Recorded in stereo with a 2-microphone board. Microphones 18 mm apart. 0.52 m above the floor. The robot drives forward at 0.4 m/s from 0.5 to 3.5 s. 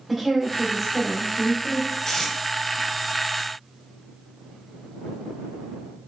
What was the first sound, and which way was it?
A woman speaking, 5° right (ahead or behind).